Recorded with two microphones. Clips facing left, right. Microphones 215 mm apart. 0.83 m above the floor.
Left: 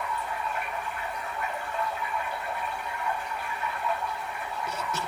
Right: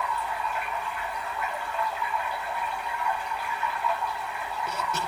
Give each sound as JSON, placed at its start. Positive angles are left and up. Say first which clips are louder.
{"t": 0.0, "sound": "running water", "louder": "right 1 dB", "side_deg": 45, "distance_m": 1.2}